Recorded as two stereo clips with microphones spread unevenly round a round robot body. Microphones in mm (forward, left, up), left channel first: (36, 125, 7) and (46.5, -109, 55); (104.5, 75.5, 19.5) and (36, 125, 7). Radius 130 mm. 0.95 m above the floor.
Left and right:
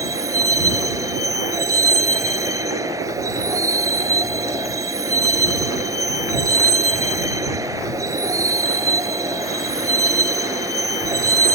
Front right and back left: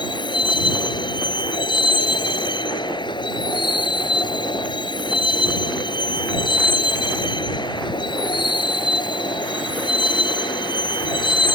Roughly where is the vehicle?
Ahead.